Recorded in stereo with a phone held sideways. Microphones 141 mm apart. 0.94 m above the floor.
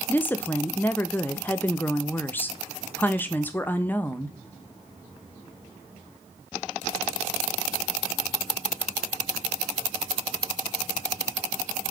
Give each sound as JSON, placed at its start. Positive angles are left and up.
{"t": 0.1, "sound": "a woman speaking", "side_deg": 15, "distance_m": 0.6}